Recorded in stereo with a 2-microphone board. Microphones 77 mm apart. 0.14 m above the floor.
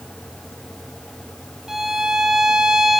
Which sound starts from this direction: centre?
A violin, at 1.7 s.